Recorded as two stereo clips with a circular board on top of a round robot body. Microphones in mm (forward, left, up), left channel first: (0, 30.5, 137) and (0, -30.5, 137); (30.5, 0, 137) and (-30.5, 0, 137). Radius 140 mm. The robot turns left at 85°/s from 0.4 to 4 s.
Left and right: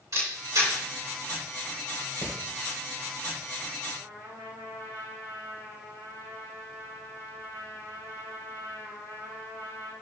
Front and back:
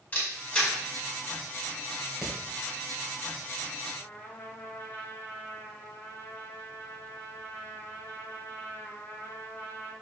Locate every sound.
0.1 s a camera shutter: 65° right, 4.5 m; by 0.7 s 90° right, 4.5 m
2.2 s hammering: 100° left, 3 m; by 2.4 s 90° left, 3 m
4.0 s a trumpet: 55° right, 4.5 m; by 9.9 s 60° right, 4.5 m